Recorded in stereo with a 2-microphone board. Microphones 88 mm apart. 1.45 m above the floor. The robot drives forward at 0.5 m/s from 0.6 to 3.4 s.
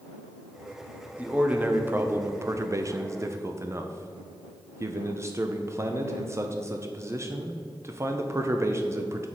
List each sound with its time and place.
1.2 s a man speaking: 15° right (ahead or behind), 1.0 m; by 9.3 s 35° right (ahead or behind), 0.5 m